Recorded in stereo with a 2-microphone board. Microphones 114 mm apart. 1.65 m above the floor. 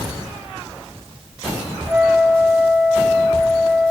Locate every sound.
1.9 s a flute: 15° right (ahead or behind), 2.0 m